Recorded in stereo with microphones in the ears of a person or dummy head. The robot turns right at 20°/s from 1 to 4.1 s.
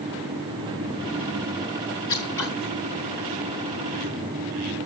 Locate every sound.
2.1 s scissors: 15° left (ahead or behind), 1.6 m; by 2.5 s 10° left (ahead or behind), 1.6 m